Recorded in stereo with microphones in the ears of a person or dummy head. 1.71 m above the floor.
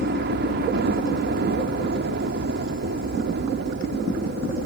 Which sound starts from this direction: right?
A helicopter, at 0.0 s.